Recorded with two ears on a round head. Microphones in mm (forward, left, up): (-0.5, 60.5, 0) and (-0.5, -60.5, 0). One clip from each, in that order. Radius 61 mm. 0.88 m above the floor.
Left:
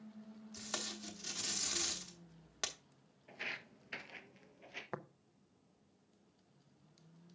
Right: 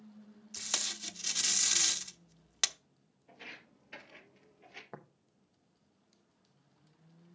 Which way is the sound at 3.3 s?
45° left (ahead or behind).